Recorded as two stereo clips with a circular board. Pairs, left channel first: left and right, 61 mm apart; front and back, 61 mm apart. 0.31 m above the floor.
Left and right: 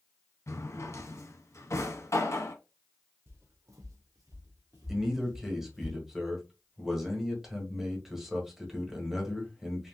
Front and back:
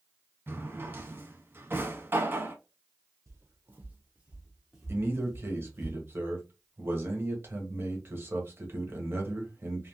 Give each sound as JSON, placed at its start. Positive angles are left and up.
{"t": 0.5, "sound": "a drawer", "azimuth_deg": 130, "distance_m": 0.6}
{"t": 3.3, "sound": "footsteps", "azimuth_deg": -140, "distance_m": 1.0}
{"t": 4.9, "sound": "a man speaking", "azimuth_deg": -175, "distance_m": 1.2}